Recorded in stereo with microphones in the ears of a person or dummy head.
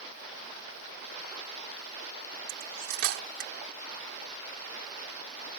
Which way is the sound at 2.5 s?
70° right (ahead or behind).